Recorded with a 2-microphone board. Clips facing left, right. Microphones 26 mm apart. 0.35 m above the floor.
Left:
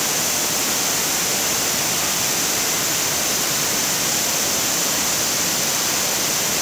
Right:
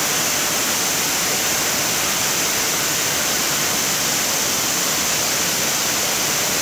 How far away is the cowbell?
No cowbell in this recording.